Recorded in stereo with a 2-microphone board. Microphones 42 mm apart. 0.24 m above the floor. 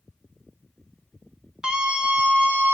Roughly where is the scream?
Centre.